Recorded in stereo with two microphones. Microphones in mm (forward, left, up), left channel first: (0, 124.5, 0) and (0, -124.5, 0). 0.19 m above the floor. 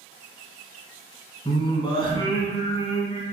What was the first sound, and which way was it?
Singing, 20° left (ahead or behind).